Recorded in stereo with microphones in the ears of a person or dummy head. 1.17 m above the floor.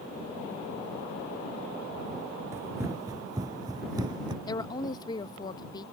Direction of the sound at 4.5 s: 25° left (ahead or behind).